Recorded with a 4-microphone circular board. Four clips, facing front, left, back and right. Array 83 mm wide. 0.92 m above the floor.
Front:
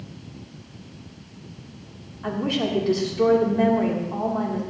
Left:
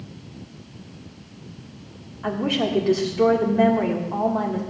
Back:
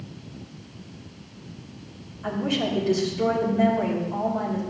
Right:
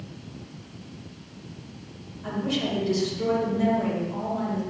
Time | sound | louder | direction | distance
2.2 | a woman speaking | left 5 dB, front 1 dB | 70° left | 2 m